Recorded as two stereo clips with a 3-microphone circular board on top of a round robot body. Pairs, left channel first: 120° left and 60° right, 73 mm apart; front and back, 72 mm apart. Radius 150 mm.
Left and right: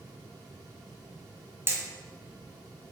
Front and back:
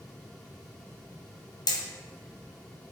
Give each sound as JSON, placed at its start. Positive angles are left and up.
{"t": 1.7, "sound": "hammering", "azimuth_deg": -5, "distance_m": 2.5}